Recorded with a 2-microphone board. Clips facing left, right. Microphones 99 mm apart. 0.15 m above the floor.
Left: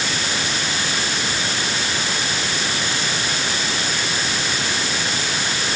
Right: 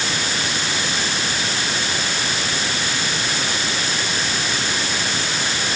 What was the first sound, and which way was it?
Only background noise.